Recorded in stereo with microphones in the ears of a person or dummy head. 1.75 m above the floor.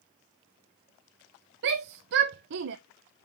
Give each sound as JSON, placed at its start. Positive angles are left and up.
{"t": 1.6, "sound": "a shout", "side_deg": -65, "distance_m": 0.5}